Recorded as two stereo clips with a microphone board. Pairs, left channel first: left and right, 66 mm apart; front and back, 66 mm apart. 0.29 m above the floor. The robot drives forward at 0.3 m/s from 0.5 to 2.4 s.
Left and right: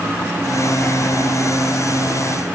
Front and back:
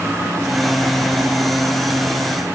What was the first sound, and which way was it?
Only background noise.